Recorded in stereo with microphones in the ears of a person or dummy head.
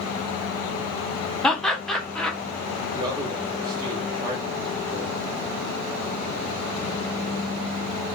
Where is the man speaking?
20° right (ahead or behind), 1.2 m.